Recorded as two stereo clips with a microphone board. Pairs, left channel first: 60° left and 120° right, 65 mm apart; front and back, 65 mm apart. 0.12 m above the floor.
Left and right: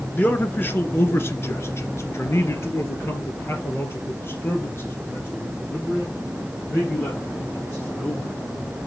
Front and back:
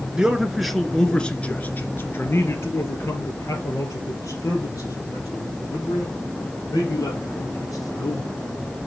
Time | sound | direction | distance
0.1 | a man speaking | 110° left | 1.4 m